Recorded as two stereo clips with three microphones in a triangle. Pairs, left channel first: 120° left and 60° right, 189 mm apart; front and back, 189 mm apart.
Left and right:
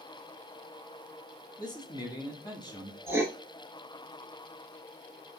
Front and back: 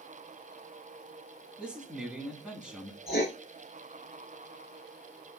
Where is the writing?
15° left, 0.9 m.